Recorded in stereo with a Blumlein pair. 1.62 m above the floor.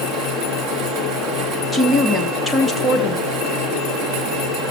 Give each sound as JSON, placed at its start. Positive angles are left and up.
{"t": 0.0, "sound": "a fan", "azimuth_deg": -25, "distance_m": 1.7}
{"t": 1.7, "sound": "a woman speaking", "azimuth_deg": 5, "distance_m": 1.2}